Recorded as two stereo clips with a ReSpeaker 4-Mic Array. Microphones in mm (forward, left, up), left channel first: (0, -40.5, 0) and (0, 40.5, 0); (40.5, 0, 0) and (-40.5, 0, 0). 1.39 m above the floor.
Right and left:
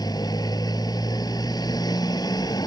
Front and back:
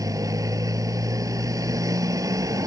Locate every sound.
0.0 s a motorcycle: 130° right